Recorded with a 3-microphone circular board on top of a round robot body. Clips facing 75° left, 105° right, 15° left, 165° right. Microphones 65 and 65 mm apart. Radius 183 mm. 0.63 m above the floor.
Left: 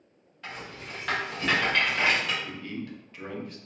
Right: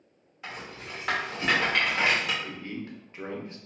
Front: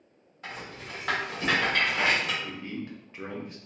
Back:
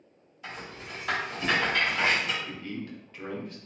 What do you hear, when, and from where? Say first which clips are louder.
0.4 s a rattle: even, front 1 dB; 25° right, 1.4 m
2.4 s a man speaking: even, front 1 dB; 45° right, 0.8 m